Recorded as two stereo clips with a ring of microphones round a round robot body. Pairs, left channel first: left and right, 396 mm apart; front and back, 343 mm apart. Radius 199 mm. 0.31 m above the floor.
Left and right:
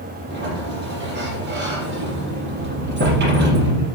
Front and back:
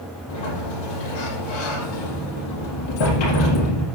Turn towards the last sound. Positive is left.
turn(degrees=-25)